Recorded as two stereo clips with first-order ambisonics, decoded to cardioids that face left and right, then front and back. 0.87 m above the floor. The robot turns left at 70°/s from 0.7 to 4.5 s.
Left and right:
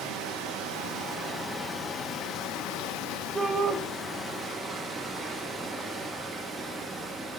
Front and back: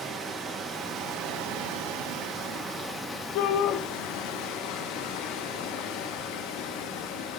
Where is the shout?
5° right, 0.9 m; by 3.8 s 35° right, 0.9 m.